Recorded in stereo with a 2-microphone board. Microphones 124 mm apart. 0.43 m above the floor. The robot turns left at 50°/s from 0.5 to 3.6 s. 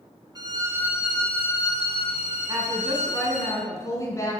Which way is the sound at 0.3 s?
150° right.